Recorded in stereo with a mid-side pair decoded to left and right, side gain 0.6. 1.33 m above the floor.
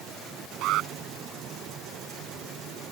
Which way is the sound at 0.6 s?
65° right.